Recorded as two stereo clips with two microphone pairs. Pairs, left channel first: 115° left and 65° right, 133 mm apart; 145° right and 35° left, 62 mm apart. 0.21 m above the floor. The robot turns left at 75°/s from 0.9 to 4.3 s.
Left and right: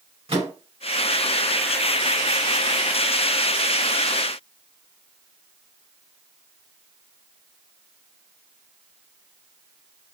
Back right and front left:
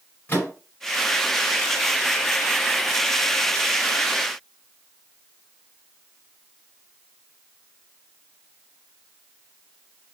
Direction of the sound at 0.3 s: 90° right.